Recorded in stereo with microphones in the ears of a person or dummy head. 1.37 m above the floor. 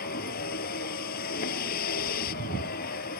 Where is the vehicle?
45° left (ahead or behind).